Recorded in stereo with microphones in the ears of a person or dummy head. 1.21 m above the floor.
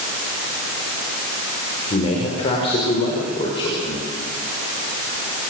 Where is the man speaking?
35° left (ahead or behind), 5 m; by 4.0 s 30° left (ahead or behind), 6 m.